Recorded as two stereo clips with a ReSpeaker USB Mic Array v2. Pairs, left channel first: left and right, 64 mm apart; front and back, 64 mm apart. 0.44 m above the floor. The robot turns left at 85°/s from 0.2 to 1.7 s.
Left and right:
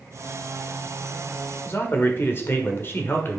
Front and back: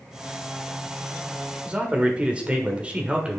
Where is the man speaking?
120° left, 1.3 m; by 3.4 s 115° left, 1.3 m.